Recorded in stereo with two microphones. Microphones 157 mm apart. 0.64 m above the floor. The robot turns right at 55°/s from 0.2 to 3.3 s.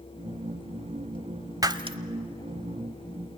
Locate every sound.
1.6 s breaking glass: 25° right (ahead or behind), 0.8 m; by 2.0 s 40° right (ahead or behind), 0.8 m